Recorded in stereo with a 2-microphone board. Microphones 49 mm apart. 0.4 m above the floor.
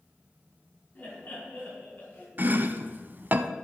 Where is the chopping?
40° right (ahead or behind), 0.5 m.